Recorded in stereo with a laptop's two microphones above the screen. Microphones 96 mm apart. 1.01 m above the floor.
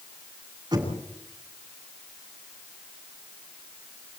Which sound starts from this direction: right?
Knocking, at 0.7 s.